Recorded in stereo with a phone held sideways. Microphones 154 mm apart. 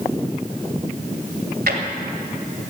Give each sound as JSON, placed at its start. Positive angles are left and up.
{"t": 1.7, "sound": "a drawer", "side_deg": -85, "distance_m": 2.0}